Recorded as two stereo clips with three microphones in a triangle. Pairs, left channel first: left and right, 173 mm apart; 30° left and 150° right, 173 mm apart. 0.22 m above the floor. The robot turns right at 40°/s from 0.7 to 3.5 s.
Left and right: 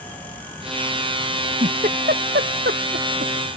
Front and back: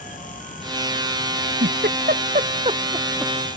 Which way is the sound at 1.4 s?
150° right.